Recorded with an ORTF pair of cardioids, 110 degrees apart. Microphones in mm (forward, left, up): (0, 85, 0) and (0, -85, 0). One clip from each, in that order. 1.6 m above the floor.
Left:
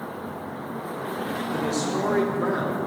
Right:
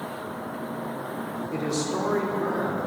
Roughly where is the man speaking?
Ahead.